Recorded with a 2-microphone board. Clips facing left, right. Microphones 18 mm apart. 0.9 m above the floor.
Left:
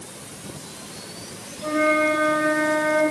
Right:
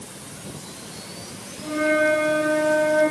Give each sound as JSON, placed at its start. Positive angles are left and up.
{"t": 1.6, "sound": "a flute", "side_deg": 75, "distance_m": 3.5}